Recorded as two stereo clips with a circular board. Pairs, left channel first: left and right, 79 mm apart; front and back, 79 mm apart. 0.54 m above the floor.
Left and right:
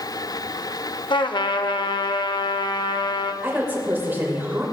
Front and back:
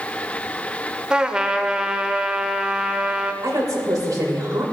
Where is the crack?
I don't hear a crack.